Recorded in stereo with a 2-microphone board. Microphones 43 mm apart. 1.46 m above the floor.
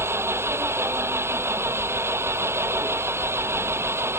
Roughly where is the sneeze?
I don't hear a sneeze.